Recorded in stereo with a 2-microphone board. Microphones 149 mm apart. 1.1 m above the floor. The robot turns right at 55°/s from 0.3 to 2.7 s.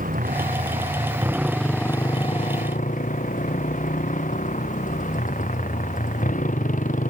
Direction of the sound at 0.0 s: 70° right.